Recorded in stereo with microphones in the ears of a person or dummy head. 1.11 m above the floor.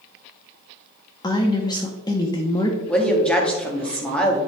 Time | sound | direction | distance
1.2 | a woman speaking | 25° left (ahead or behind) | 0.7 m
2.9 | a woman speaking | centre (ahead or behind) | 1.7 m